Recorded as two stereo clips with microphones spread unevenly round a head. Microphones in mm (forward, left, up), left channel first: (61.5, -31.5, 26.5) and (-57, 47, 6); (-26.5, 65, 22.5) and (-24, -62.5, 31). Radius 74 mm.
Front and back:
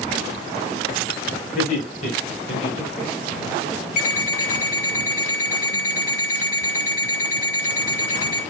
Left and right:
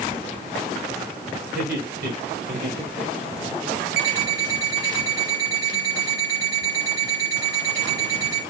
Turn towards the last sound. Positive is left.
turn(degrees=-70)